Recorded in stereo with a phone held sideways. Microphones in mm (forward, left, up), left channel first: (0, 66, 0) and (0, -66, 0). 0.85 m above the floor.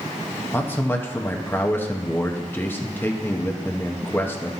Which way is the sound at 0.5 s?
15° left (ahead or behind).